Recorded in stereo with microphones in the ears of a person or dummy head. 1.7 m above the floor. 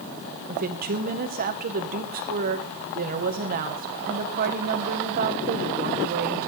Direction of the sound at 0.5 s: 45° right (ahead or behind).